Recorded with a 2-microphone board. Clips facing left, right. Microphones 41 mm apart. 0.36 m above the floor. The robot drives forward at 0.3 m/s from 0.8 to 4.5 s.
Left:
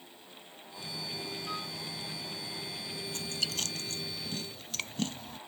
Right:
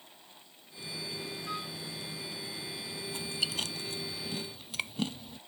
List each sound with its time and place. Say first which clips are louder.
1.5 s a flute: right 2 dB; 5° right (ahead or behind)
3.1 s chewing: right 2 dB; 15° right (ahead or behind)